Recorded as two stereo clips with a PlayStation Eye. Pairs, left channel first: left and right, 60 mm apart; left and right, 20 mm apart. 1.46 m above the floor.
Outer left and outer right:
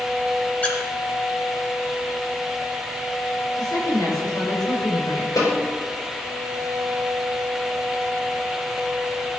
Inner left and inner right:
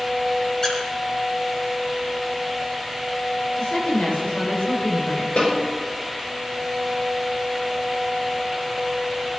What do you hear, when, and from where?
0.6 s a squeak: 25° left (ahead or behind), 2.5 m
3.6 s a woman speaking: 90° left, 6.5 m
5.4 s a snare drum: 75° left (ahead or behind), 4.5 m